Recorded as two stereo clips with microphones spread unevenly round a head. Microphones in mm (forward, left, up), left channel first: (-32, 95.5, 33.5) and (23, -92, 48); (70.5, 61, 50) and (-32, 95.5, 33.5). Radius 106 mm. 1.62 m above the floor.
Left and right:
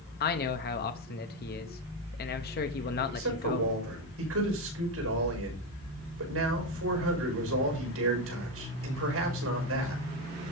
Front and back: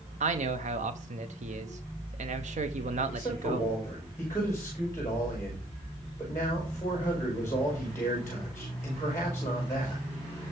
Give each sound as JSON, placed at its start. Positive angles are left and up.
{"t": 0.2, "sound": "a man speaking", "azimuth_deg": 150, "distance_m": 0.9}
{"t": 3.1, "sound": "a man speaking", "azimuth_deg": -95, "distance_m": 5.5}